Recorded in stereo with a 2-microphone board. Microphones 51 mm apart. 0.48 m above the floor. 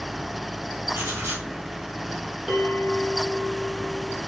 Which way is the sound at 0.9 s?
70° right (ahead or behind).